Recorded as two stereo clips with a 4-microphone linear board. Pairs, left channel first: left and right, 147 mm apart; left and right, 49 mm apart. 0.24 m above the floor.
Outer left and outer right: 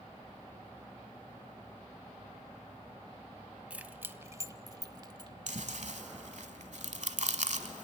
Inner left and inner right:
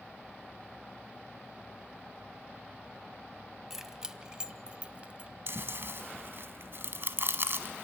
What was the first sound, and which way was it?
Keys jangling, 10° right (ahead or behind).